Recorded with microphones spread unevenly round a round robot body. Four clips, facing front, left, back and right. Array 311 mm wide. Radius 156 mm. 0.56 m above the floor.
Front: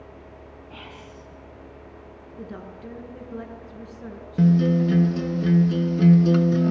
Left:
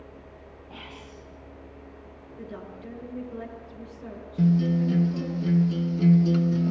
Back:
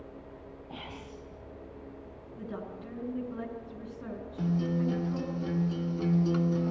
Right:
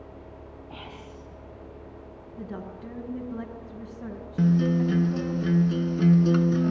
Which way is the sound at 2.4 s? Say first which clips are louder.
Right 2 dB, front 2 dB; 110° right.